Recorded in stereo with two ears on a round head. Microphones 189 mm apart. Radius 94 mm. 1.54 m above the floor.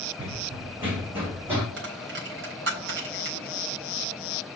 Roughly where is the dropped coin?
Right.